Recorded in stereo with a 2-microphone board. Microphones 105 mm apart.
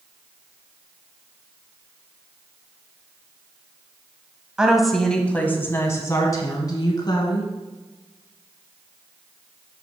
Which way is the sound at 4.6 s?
10° right (ahead or behind).